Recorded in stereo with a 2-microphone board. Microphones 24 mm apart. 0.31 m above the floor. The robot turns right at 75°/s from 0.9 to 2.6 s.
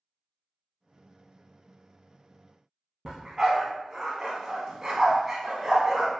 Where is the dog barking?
25° right (ahead or behind), 0.6 m.